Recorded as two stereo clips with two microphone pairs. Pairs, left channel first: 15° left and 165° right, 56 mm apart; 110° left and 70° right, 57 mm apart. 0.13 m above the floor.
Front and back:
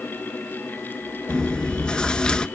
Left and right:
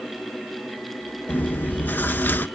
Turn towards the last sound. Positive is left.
turn(degrees=80)